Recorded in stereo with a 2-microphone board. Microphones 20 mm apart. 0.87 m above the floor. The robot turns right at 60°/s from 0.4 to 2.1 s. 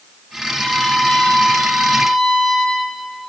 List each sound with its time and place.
0.5 s a violin: 45° left, 5.5 m; by 2.9 s 140° left, 5.5 m